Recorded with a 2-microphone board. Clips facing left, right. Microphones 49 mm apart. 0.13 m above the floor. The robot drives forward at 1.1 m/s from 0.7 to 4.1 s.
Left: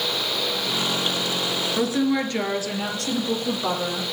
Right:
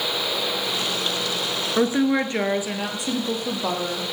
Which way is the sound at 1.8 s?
30° right (ahead or behind).